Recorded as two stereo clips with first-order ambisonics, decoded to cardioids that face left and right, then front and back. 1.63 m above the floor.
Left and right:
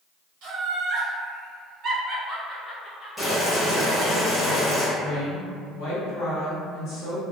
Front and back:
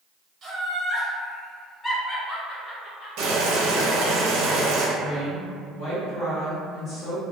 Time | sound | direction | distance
0.4 | laughter | 115° right | 1.0 m
3.2 | boiling | 175° left | 0.7 m
5.0 | a woman speaking | 60° left | 1.0 m